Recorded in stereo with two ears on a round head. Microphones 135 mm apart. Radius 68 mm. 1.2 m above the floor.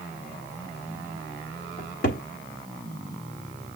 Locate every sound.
1.8 s a cupboard door: 60° left (ahead or behind), 1.4 m